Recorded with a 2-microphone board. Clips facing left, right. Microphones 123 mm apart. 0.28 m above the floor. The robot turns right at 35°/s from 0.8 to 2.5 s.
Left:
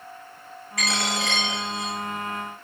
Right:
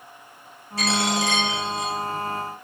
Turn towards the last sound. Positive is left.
turn(degrees=30)